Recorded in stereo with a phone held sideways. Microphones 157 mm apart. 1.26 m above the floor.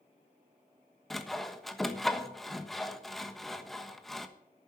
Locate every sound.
1.1 s sawing: centre (ahead or behind), 1.2 m